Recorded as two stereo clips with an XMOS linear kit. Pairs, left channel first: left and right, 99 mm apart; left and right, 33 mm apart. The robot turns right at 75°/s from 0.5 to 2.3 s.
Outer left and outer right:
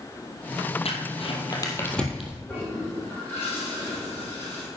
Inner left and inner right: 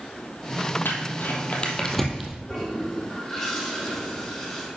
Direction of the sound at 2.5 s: 20° left (ahead or behind).